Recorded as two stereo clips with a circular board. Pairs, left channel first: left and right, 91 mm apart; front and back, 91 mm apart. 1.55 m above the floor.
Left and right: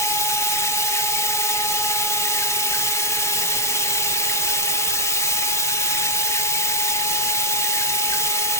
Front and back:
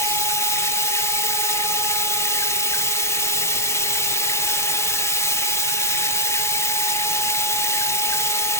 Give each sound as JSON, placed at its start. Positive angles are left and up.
{"t": 0.0, "sound": "running water", "azimuth_deg": 45, "distance_m": 0.8}